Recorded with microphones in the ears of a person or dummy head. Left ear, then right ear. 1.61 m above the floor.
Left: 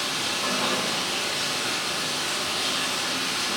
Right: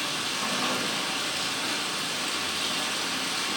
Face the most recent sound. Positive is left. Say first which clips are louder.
# left 3 dB
turn(degrees=-20)  # may be behind; listen again after turning